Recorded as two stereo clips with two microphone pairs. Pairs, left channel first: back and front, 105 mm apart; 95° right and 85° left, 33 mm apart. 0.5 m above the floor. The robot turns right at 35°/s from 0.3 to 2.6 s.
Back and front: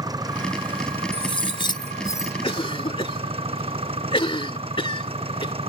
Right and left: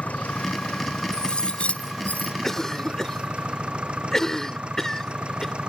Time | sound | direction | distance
0.0 | an engine running | 55° right | ?
1.1 | cutlery clinking | 160° right | ?
2.4 | a cough | 175° right | ?